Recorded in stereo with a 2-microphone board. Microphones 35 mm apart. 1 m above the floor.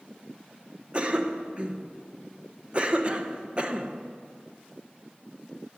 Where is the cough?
30° right (ahead or behind), 1.0 m.